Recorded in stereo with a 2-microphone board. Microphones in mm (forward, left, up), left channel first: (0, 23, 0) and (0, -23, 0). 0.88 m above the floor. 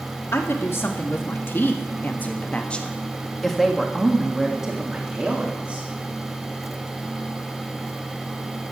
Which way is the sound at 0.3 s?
65° left (ahead or behind).